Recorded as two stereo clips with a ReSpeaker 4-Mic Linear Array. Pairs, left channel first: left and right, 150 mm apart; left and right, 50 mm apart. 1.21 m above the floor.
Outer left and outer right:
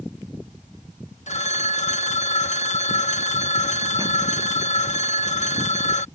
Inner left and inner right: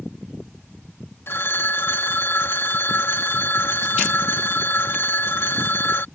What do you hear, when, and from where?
1.3 s a phone ringing: 50° left (ahead or behind)